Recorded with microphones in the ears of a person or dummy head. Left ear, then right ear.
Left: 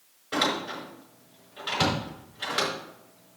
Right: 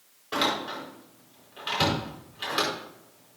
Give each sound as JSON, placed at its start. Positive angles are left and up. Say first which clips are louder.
{"t": 0.3, "sound": "a door slam", "louder": "even", "side_deg": -5, "distance_m": 5.0}